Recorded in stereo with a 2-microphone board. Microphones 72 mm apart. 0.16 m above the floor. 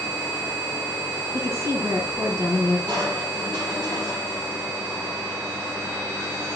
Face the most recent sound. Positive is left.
turn(degrees=-75)  # may be behind; listen again after turning